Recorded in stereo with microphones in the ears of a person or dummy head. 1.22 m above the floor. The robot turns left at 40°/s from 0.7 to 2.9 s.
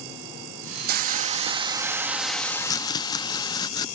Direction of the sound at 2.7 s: 20° left (ahead or behind).